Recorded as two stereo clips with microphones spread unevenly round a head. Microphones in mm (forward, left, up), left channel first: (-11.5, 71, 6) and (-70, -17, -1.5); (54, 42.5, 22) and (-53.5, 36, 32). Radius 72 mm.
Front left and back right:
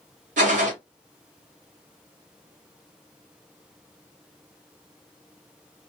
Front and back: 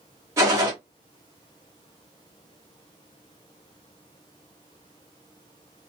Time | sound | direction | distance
0.4 | a gunshot | 105° right | 1.3 m